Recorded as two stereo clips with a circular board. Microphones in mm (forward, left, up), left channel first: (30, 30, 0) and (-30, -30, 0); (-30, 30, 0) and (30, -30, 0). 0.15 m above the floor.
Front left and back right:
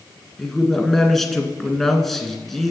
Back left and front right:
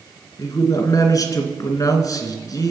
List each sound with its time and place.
0.4 s a man speaking: 130° left, 2 m